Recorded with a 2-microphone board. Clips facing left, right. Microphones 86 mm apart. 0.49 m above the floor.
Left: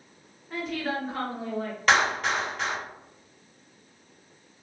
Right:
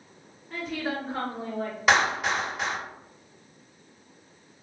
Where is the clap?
10° right (ahead or behind), 1.6 m.